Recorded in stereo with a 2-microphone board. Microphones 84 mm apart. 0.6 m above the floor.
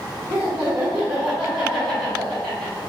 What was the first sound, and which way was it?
Laughter, 25° right (ahead or behind).